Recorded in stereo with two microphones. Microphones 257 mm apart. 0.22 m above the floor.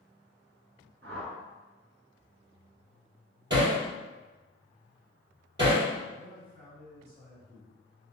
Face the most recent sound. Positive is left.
turn(degrees=-40)  # may be behind; listen again after turning